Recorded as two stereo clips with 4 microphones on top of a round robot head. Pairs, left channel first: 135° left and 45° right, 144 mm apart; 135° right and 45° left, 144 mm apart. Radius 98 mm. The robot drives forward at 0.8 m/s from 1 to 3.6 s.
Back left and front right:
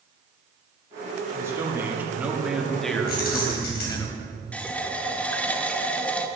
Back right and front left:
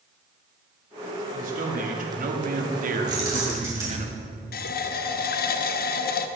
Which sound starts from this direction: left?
Keys jangling, at 3.1 s.